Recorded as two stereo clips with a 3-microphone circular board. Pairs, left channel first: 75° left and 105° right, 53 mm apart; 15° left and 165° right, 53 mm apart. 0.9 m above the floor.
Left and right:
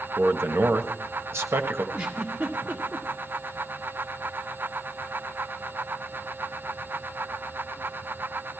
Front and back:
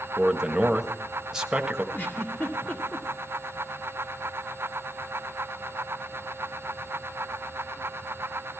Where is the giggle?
40° right, 1.9 m.